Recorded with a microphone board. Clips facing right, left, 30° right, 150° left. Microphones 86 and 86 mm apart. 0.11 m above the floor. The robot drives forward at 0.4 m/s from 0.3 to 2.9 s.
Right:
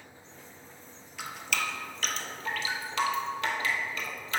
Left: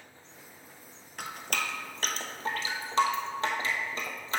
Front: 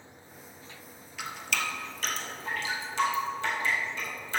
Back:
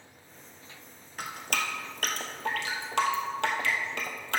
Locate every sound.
1.2 s dripping: 115° left, 0.9 m; by 4.4 s 145° left, 1.3 m